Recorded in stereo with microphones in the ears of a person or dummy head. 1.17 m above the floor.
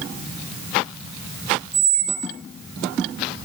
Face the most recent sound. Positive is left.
turn(degrees=30)  # may be behind; listen again after turning